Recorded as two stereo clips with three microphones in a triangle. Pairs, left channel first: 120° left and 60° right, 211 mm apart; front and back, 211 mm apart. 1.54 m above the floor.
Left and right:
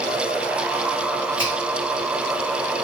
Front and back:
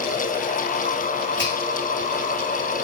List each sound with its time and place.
1.4 s a finger snap: 35° right, 1.8 m